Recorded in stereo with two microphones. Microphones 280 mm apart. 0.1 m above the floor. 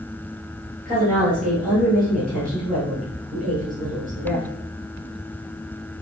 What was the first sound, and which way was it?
A woman speaking, 30° right (ahead or behind).